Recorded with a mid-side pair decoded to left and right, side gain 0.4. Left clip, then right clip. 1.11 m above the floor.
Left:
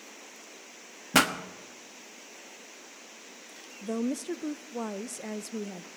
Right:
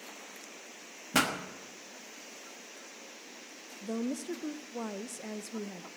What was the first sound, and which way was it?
A pop, 45° left.